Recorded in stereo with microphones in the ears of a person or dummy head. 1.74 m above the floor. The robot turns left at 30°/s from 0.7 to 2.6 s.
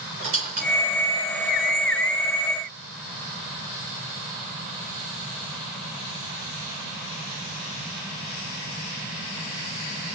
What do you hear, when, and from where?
0.2 s a squeak: 35° right (ahead or behind), 1.1 m; by 2.2 s 5° right (ahead or behind), 1.1 m